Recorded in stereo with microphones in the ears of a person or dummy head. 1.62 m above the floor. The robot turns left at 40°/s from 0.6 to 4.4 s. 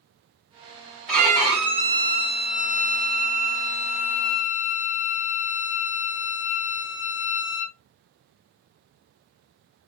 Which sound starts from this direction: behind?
A violin, at 1.1 s.